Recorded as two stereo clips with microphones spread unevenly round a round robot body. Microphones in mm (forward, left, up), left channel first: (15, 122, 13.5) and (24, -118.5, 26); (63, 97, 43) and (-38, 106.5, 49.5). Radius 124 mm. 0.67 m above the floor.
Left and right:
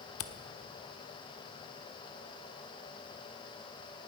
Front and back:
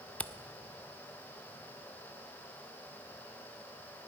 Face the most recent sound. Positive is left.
turn(degrees=70)